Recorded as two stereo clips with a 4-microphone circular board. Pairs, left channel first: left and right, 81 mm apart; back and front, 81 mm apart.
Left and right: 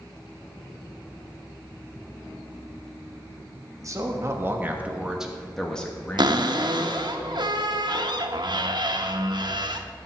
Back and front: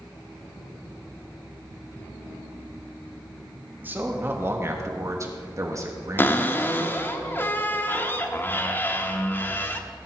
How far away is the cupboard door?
About 0.8 m.